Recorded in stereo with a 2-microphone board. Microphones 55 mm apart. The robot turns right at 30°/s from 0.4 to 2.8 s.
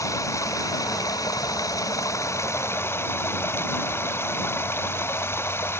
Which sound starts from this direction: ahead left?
Running water, at 0.0 s.